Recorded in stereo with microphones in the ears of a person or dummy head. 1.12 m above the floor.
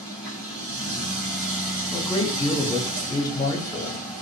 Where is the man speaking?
25° left (ahead or behind), 1.4 m.